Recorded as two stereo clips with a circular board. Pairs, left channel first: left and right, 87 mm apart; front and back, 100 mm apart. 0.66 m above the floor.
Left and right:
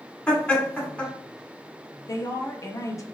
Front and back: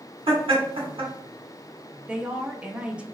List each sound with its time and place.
0.3 s laughter: 165° left, 1.7 m
2.1 s a woman speaking: 110° left, 0.6 m